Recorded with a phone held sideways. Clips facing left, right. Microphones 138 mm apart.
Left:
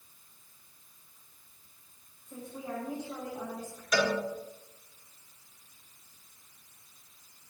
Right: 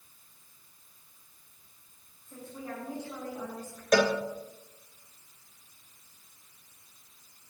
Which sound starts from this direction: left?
A woman speaking, at 2.2 s.